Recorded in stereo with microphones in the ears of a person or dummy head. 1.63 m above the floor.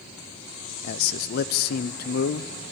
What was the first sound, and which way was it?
A man speaking, 55° left (ahead or behind).